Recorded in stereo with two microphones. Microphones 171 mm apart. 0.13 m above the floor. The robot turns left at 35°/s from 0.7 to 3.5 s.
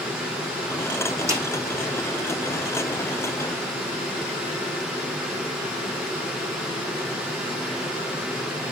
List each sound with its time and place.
1.3 s a snare drum: 15° right (ahead or behind), 5 m; by 1.4 s 10° right (ahead or behind), 5 m